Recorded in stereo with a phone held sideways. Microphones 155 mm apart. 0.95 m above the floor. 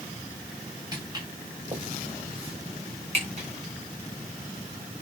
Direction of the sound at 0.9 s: 25° right (ahead or behind).